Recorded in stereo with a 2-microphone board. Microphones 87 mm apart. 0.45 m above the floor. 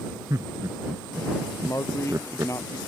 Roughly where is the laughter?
Right.